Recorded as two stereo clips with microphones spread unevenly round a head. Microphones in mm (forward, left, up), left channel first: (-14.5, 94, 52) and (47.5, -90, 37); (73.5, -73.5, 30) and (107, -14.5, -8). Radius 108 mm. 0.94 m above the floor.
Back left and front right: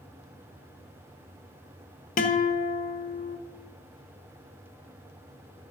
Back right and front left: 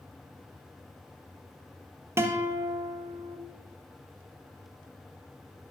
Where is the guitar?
65° left, 1.2 m.